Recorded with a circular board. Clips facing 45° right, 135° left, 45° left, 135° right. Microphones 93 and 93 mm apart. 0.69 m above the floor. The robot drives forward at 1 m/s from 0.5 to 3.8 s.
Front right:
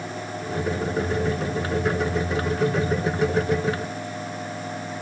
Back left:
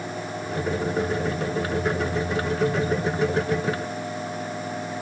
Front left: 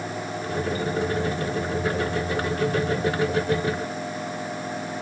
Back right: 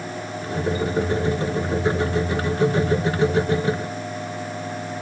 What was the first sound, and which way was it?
Only background noise.